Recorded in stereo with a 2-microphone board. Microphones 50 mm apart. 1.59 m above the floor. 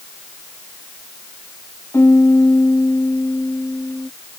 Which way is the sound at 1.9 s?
65° left (ahead or behind).